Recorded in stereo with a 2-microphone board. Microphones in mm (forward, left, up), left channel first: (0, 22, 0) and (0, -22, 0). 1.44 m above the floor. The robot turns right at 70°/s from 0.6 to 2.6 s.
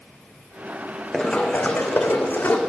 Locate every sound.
1.1 s running footsteps: 15° left (ahead or behind), 3 m; by 2.6 s 30° left (ahead or behind), 3 m